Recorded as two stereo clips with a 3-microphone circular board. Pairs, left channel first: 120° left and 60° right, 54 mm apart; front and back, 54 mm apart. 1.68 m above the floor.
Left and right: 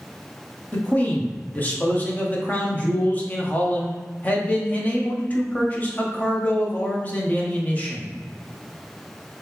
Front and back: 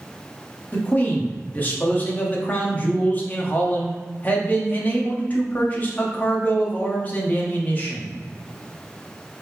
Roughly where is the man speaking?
Ahead left.